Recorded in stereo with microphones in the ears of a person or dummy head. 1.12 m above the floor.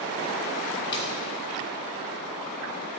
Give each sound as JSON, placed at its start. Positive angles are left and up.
{"t": 0.9, "sound": "a splash", "side_deg": 25, "distance_m": 1.1}